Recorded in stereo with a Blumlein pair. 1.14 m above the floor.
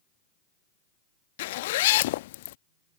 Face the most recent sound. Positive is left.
turn(degrees=55)